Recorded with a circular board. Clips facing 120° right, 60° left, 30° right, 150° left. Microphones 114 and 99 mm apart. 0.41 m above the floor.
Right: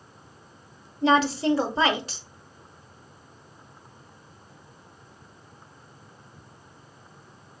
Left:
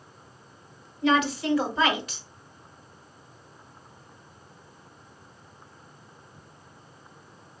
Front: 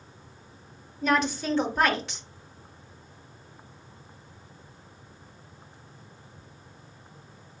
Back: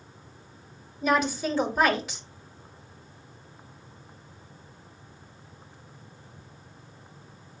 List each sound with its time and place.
1.0 s a woman speaking: 125° right, 0.9 m